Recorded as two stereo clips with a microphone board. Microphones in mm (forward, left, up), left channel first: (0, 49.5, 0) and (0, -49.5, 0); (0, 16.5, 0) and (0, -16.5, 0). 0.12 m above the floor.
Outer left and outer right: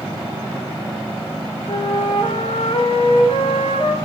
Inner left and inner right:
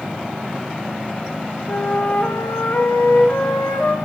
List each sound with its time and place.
1.7 s a flute: 60° left (ahead or behind), 4.5 m